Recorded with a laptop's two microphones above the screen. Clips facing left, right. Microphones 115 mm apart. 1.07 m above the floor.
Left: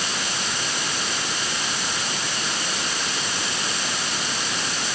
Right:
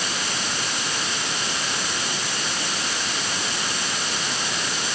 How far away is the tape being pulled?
No tape being pulled in this recording.